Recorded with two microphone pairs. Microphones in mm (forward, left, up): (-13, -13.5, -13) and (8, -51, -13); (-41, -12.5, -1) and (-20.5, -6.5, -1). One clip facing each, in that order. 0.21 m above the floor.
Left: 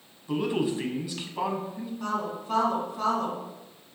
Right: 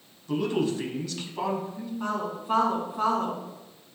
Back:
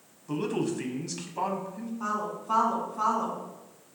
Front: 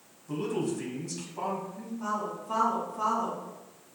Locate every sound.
0.3 s a man speaking: straight behind, 1.1 m
2.0 s a woman speaking: 120° right, 2 m